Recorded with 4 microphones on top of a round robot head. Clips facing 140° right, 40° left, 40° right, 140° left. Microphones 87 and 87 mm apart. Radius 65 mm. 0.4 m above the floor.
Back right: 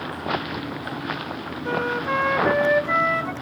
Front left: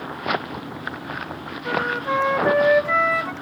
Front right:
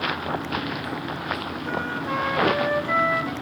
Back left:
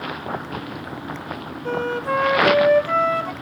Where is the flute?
130° left, 1.1 m.